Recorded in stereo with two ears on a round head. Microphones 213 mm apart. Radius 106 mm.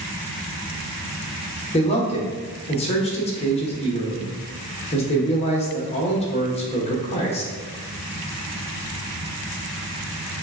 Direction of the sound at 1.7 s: 25° left (ahead or behind).